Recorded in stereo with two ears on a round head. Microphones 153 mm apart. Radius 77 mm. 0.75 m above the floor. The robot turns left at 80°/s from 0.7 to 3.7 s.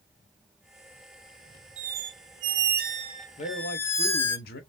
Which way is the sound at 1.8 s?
40° right.